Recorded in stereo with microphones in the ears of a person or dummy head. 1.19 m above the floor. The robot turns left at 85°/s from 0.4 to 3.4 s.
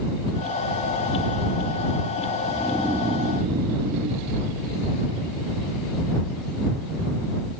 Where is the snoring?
25° left; by 4.3 s 50° right.